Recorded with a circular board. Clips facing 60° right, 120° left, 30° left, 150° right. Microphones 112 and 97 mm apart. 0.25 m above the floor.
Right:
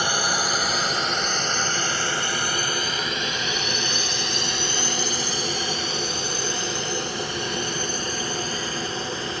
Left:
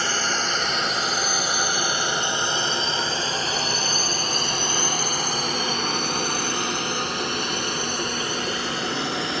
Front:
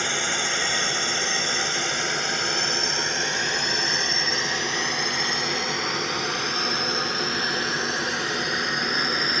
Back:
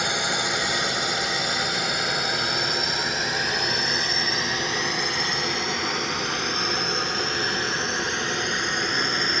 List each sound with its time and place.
0.0 s a drone: 100° right; by 9.4 s 115° left